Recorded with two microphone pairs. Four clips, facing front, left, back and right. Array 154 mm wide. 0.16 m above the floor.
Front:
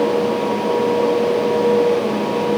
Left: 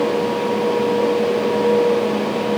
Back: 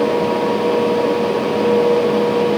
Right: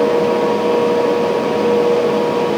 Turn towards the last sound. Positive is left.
No sound to turn to.